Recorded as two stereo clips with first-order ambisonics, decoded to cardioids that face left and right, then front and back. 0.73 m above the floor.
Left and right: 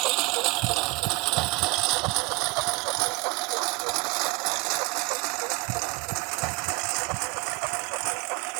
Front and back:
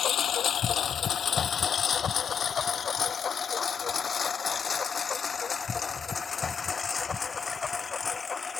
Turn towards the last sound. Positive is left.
turn(degrees=-75)